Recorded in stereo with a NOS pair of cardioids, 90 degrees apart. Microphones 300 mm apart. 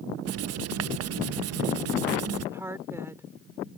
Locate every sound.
0.2 s writing: 55° right
2.5 s a woman speaking: 10° right